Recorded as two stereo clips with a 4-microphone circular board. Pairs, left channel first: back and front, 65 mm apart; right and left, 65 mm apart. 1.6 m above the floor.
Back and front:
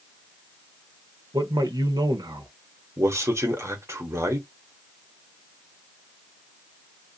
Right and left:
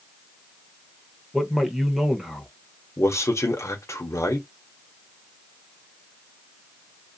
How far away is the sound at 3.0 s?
About 1.1 m.